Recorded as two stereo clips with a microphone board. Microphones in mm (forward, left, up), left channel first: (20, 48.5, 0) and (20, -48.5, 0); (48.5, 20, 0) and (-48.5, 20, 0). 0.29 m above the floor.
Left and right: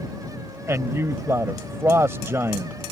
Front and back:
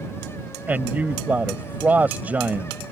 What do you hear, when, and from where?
0.7 s a man speaking: 120° right